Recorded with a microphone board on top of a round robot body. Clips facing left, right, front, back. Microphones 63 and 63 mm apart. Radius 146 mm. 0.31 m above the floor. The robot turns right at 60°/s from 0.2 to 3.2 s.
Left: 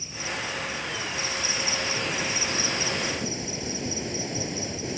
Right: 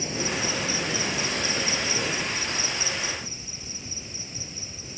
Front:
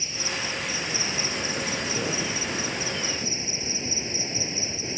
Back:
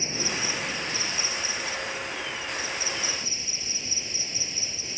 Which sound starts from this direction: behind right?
An insect, at 0.0 s.